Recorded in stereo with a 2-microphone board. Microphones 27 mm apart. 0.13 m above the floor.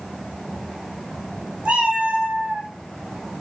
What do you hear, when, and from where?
1.6 s a cat meowing: 65° right (ahead or behind), 1.0 m; by 2.7 s 45° right (ahead or behind), 0.6 m